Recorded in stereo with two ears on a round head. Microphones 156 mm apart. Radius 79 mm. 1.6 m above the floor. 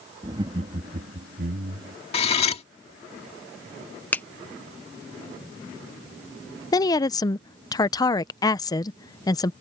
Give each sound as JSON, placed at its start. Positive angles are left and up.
{"t": 0.2, "sound": "laughter", "side_deg": -25}
{"t": 2.1, "sound": "cutlery clinking", "side_deg": 35}
{"t": 4.1, "sound": "a finger snap", "side_deg": 10}
{"t": 6.7, "sound": "a woman speaking", "side_deg": 20}